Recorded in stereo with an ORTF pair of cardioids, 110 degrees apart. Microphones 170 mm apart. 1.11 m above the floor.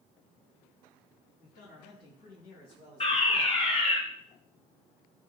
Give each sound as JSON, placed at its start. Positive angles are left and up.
{"t": 1.4, "sound": "a man speaking", "azimuth_deg": 70, "distance_m": 5.5}
{"t": 3.0, "sound": "a fire alarm", "azimuth_deg": 40, "distance_m": 5.0}